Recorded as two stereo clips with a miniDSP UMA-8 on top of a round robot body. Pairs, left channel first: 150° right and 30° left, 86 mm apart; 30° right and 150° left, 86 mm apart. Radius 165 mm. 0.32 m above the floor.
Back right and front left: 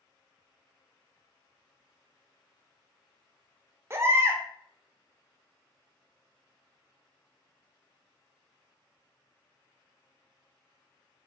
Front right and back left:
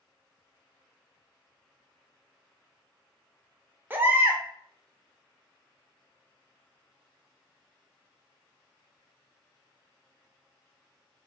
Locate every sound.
3.9 s a baby crying: 85° left, 0.7 m